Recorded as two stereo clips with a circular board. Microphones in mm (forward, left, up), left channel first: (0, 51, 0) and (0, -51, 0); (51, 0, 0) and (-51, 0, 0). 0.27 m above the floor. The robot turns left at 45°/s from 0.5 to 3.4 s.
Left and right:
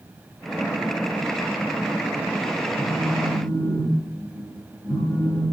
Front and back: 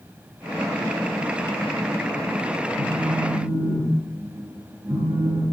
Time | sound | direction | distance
2.8 | a phone buzzing | 175° left | 3 m